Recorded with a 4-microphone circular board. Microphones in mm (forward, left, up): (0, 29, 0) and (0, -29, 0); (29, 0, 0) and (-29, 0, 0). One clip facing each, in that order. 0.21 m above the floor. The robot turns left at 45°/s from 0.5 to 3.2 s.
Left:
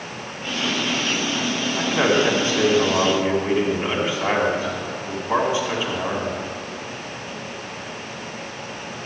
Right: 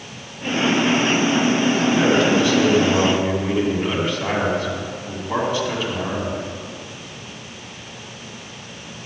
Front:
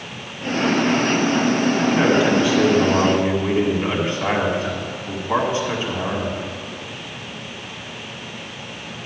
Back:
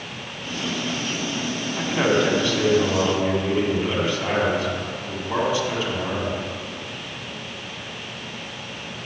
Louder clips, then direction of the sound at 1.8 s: Left 1 dB, even; 100° left.